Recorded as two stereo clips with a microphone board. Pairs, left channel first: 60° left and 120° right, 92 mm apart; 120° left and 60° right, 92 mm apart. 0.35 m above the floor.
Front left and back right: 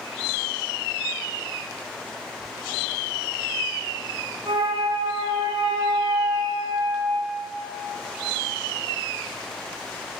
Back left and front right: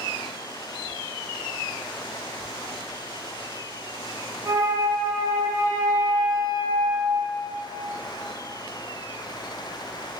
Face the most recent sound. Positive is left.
turn(degrees=-105)